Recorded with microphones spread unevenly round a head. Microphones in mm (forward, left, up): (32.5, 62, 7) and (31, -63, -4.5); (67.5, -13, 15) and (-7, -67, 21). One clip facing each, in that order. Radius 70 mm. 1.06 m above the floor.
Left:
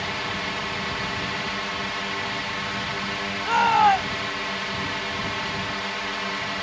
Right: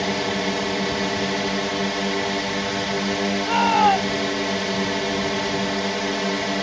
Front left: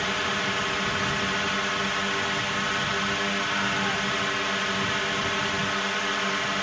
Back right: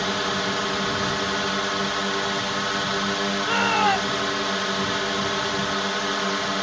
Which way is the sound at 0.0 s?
80° right.